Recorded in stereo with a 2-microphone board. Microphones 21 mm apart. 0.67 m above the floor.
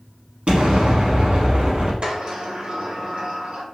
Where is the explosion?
65° right (ahead or behind), 1.1 m.